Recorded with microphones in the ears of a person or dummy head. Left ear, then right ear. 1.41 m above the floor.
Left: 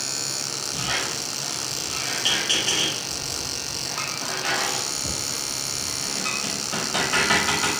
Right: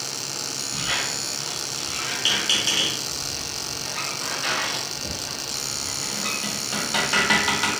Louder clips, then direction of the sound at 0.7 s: Right 1 dB; 20° right (ahead or behind).